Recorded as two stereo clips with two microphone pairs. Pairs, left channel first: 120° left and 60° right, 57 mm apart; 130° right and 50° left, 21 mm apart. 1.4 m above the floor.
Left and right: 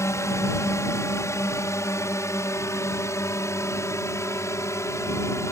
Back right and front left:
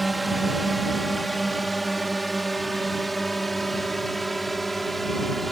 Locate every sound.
0.0 s a drone: 140° left; by 5.5 s 145° left